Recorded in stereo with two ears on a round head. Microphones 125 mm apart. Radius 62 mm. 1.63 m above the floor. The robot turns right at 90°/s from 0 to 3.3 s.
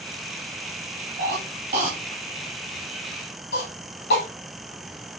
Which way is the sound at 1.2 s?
80° right.